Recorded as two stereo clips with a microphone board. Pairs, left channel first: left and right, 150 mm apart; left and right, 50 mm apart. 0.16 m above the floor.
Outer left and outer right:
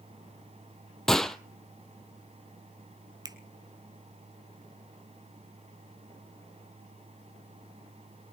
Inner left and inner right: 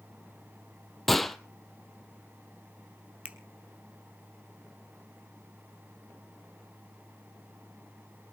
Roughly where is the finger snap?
Right.